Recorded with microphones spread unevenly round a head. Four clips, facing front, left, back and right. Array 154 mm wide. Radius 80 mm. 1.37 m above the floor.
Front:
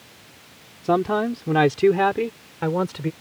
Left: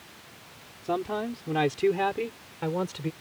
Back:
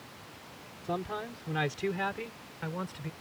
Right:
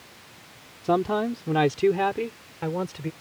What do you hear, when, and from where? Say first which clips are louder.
0.8 s a man speaking: right 6 dB, front 15 dB; 25° right; by 3.1 s straight ahead